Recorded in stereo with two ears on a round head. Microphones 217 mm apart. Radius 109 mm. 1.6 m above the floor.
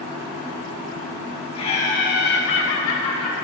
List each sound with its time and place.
1.6 s laughter: 25° left (ahead or behind), 2 m; by 3.4 s 75° left (ahead or behind), 2.5 m